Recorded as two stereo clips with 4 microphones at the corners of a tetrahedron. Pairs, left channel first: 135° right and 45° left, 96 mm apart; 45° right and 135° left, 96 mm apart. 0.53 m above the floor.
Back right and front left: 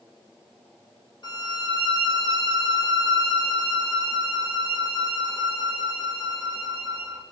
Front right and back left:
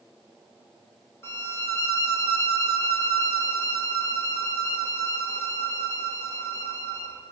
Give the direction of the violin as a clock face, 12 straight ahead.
3 o'clock.